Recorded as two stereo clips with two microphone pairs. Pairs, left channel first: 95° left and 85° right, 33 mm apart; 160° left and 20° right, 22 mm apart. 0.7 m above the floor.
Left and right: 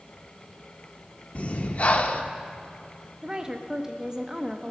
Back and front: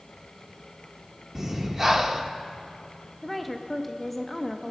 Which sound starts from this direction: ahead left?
Breathing, at 1.4 s.